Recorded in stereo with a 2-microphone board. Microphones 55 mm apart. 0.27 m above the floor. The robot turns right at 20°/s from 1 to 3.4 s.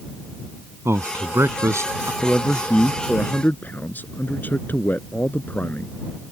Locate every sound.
0.8 s a man speaking: 55° right (ahead or behind); by 2.1 s 65° right (ahead or behind)
2.2 s a man speaking: 15° left (ahead or behind); by 6.0 s 35° left (ahead or behind)